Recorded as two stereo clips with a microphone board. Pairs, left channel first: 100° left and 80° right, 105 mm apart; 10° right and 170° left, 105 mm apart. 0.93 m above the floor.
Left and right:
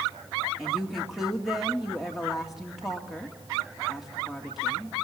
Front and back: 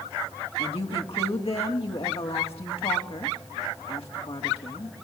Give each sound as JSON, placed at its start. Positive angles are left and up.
{"t": 0.6, "sound": "a woman speaking", "azimuth_deg": 10, "distance_m": 2.0}